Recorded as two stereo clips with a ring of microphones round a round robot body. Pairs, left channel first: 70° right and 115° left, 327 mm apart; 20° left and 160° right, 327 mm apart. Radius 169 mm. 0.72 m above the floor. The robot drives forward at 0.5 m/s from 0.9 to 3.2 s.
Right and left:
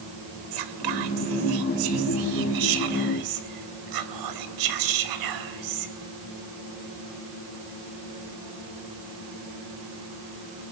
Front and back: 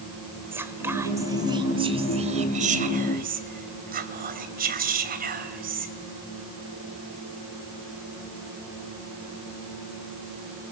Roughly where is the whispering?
Behind left.